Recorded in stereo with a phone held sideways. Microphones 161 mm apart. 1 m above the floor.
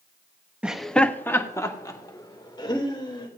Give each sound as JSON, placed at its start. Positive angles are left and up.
{"t": 0.6, "sound": "laughter", "side_deg": -5, "distance_m": 1.0}